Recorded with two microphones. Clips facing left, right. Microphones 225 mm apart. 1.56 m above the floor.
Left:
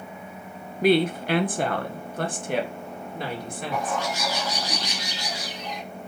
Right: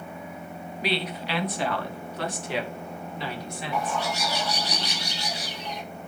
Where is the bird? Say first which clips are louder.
Left 1 dB; 80° left, 3 m.